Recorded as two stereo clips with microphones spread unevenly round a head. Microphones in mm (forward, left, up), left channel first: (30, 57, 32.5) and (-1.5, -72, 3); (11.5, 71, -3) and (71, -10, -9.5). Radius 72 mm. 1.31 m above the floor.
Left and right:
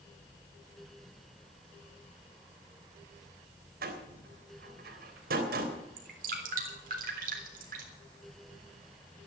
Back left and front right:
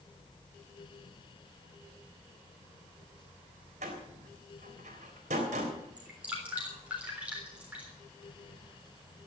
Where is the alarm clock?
No alarm clock in this recording.